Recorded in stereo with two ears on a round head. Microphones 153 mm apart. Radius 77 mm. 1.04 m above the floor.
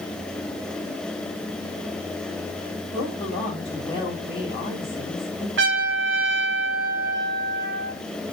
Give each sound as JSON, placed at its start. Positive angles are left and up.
{"t": 2.9, "sound": "a woman speaking", "side_deg": 30, "distance_m": 4.5}
{"t": 5.6, "sound": "a trumpet", "side_deg": -70, "distance_m": 1.7}